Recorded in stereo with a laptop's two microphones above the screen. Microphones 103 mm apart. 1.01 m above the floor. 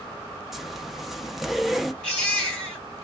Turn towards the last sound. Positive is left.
turn(degrees=10)  # may be behind; listen again after turning